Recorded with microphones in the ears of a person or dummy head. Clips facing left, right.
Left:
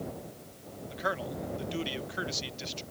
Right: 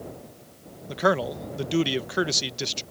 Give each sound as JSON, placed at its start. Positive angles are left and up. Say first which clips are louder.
{"t": 0.9, "sound": "a man speaking", "louder": "right 11 dB", "side_deg": -65}